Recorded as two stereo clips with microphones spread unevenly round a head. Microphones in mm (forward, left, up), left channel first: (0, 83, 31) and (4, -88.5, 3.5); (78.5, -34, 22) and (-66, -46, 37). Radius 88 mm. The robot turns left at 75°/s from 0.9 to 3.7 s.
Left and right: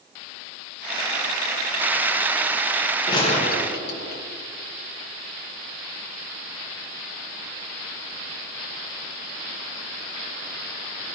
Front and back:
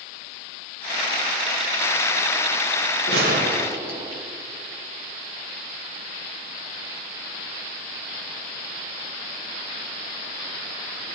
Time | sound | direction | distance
3.1 | a gunshot | 160° left | 1.7 m